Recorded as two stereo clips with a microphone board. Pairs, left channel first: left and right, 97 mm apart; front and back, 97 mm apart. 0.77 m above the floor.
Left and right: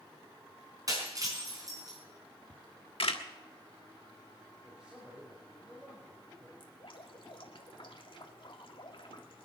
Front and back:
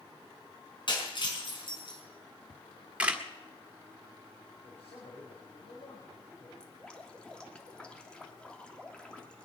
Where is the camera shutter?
105° left, 1.5 m.